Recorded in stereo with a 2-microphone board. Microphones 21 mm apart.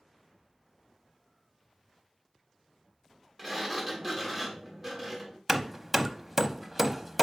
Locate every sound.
3.4 s a sliding door: centre (ahead or behind), 1.7 m
5.5 s hammering: 10° right (ahead or behind), 0.6 m